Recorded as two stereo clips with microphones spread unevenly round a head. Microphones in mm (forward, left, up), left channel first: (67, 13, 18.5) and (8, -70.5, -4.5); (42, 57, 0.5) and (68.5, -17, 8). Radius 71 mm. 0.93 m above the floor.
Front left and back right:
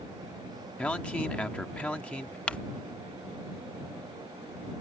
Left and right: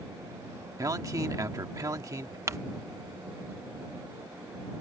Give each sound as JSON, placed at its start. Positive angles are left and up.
{"t": 0.8, "sound": "a man speaking", "azimuth_deg": -25}
{"t": 2.5, "sound": "crumpling", "azimuth_deg": -35}